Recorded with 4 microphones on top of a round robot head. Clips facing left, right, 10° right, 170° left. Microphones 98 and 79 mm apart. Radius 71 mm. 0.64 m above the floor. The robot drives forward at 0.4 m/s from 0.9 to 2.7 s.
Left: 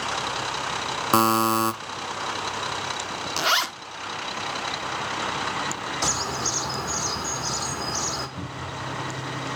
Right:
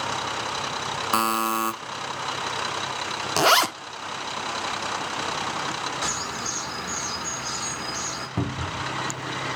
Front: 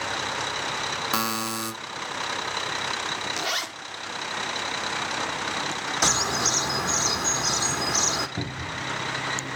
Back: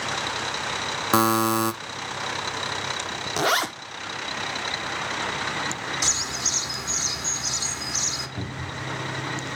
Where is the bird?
25° left, 1.0 m.